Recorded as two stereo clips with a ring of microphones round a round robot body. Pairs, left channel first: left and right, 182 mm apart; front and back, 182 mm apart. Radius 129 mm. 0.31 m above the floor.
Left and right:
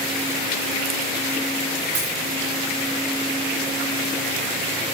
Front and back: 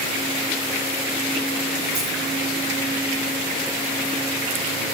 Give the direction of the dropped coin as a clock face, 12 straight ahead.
4 o'clock.